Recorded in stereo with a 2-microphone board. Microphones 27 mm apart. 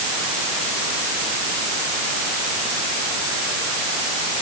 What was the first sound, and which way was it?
Only background noise.